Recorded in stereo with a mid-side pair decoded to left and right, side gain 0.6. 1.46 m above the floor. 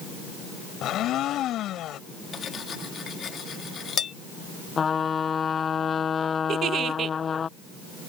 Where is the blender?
55° left.